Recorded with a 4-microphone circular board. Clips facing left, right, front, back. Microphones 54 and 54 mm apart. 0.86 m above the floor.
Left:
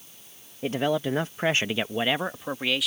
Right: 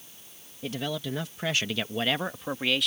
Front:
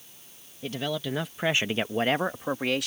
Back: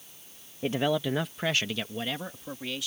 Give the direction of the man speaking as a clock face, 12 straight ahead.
8 o'clock.